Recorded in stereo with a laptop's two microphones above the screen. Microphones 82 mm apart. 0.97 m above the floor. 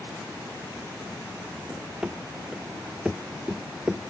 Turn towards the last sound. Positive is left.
turn(degrees=-10)  # may be behind; listen again after turning